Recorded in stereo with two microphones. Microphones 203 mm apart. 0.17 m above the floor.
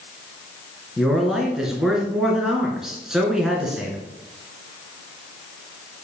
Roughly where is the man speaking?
Centre.